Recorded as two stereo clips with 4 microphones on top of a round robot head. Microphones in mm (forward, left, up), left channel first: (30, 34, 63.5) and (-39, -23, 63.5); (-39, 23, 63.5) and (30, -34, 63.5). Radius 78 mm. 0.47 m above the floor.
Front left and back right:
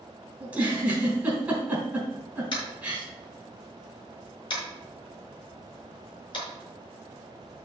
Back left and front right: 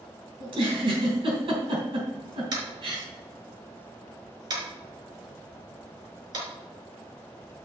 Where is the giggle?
65° right, 4 m.